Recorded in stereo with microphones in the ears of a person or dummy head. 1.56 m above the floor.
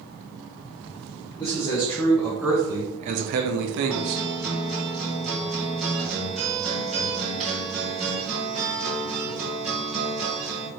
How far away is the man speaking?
About 1.2 m.